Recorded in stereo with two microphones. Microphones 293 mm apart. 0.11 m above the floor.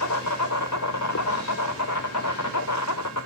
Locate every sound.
0.0 s an insect: 70° left (ahead or behind), 0.9 m